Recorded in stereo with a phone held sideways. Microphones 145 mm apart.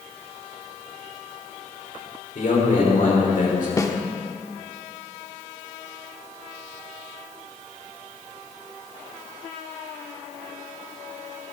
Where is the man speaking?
65° left (ahead or behind), 4.5 m.